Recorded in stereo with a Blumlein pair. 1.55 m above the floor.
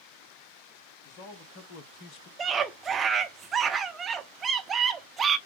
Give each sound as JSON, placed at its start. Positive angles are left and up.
{"t": 1.1, "sound": "a man speaking", "azimuth_deg": 35, "distance_m": 1.7}
{"t": 2.4, "sound": "a scream", "azimuth_deg": -20, "distance_m": 0.9}